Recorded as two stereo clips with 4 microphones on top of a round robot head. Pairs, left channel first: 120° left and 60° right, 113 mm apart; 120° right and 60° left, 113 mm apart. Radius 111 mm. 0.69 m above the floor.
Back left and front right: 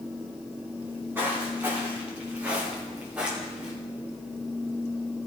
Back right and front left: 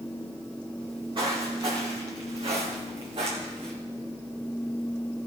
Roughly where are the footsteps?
Ahead.